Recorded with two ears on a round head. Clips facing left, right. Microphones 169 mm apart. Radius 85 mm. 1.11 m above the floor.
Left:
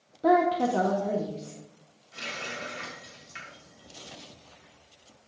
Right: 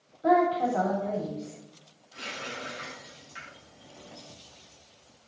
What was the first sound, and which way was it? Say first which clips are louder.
A woman speaking: left 1 dB; 55° left (ahead or behind).